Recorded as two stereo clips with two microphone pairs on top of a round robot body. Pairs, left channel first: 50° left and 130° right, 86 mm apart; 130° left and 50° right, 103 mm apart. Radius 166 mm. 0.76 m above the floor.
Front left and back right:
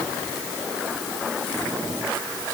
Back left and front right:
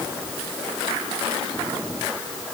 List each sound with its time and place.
Only background noise.